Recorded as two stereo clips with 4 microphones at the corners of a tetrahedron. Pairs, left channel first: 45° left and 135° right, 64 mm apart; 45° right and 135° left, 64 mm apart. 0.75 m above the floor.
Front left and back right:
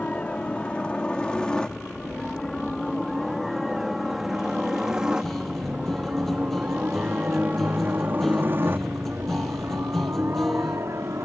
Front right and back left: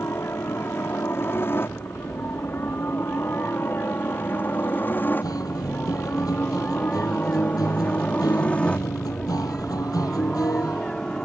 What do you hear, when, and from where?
0.0 s a helicopter: 15° right; by 11.2 s 120° right
5.2 s a guitar: 40° right